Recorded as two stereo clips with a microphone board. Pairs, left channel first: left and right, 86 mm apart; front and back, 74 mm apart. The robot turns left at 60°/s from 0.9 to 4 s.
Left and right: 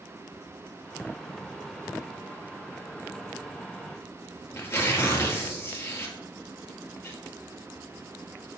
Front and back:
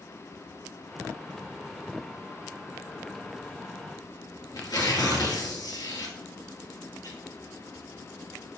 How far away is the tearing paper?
About 1.8 m.